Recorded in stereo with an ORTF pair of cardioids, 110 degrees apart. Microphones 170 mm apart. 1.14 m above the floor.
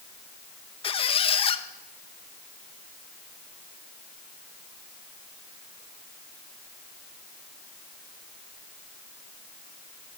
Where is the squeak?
30° left, 0.7 m.